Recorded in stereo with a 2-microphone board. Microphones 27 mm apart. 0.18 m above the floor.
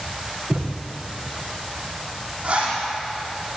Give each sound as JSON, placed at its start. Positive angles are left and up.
{"t": 0.5, "sound": "a thud", "side_deg": -20, "distance_m": 4.5}
{"t": 2.4, "sound": "a zipper", "side_deg": -40, "distance_m": 8.5}